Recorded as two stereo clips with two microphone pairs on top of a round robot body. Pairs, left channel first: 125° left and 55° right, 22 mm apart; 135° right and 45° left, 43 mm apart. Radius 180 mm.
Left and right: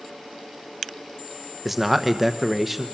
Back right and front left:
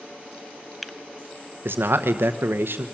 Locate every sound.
1.6 s a man speaking: 25° left, 1.1 m